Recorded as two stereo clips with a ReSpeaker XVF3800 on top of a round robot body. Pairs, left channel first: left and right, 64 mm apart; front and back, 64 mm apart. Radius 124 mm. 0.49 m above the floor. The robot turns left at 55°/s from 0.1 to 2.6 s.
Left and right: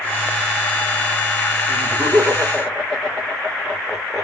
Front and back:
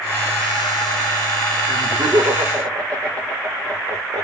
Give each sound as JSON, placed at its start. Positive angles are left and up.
{"t": 1.7, "sound": "laughter", "azimuth_deg": -130, "distance_m": 3.0}